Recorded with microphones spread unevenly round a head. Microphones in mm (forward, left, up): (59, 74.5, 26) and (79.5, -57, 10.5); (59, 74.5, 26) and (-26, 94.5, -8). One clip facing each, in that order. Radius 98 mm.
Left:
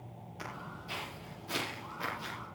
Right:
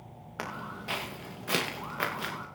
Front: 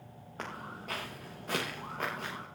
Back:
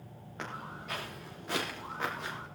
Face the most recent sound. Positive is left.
turn(degrees=-70)